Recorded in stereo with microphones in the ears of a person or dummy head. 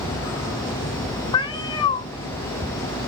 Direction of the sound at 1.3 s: 25° left (ahead or behind).